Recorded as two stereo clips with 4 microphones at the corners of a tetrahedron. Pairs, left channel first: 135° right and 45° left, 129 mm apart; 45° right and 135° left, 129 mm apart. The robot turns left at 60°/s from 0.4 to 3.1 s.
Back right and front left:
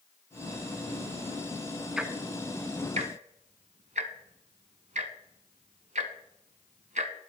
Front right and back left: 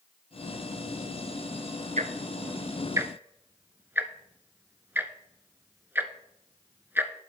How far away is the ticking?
About 1.0 m.